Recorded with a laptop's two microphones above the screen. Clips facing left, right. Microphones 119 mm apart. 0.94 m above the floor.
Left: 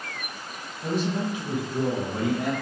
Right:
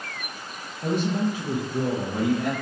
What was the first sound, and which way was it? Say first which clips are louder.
A man speaking: right 2 dB; 60° right (ahead or behind).